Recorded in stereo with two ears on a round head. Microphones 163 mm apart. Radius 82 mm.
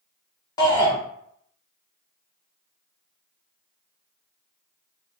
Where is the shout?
20° left (ahead or behind), 0.5 m.